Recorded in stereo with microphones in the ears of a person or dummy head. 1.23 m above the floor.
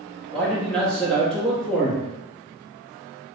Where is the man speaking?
Centre (ahead or behind), 0.6 m.